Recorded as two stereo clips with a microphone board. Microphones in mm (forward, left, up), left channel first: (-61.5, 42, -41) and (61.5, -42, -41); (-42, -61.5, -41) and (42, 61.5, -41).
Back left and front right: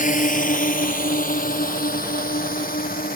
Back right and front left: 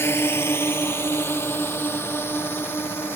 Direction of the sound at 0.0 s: 165° left.